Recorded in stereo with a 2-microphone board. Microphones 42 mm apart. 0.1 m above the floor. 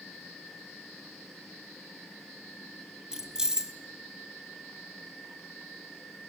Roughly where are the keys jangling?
Centre.